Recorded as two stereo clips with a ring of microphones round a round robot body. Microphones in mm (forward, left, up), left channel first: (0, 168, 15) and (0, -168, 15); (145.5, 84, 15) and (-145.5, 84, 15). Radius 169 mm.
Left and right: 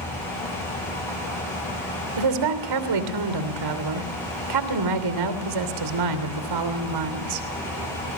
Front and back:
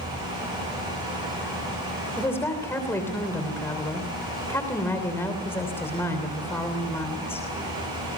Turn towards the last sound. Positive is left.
turn(degrees=-85)